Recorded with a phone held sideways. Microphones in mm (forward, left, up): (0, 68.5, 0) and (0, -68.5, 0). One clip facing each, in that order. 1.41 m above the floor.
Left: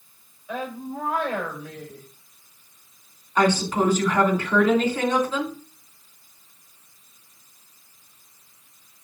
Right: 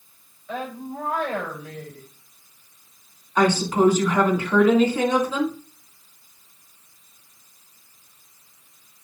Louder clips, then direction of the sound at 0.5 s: Even; 10° left (ahead or behind).